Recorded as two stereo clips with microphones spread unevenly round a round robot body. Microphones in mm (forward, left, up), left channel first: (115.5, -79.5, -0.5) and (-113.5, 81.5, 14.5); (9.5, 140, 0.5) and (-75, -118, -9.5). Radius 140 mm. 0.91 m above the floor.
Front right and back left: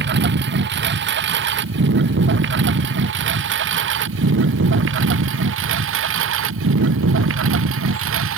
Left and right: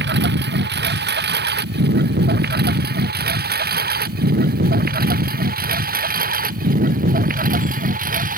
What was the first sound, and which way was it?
A lawn mower, 160° right.